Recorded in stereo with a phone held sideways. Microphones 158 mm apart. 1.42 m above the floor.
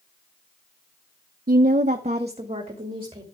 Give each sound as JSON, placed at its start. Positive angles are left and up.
{"t": 1.5, "sound": "a woman speaking", "side_deg": -65, "distance_m": 0.7}